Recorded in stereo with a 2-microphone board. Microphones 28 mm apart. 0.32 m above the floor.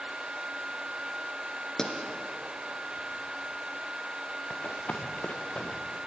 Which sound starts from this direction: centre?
A pop, at 1.8 s.